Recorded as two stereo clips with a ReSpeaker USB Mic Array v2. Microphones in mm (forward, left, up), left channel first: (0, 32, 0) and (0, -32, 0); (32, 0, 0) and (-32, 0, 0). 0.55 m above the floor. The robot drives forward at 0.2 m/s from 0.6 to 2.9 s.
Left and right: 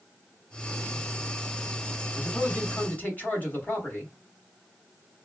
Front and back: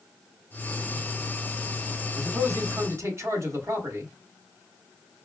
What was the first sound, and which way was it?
A man speaking, 145° left.